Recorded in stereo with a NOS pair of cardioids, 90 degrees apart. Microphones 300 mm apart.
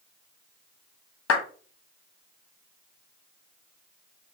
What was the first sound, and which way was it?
A clap, 50° left.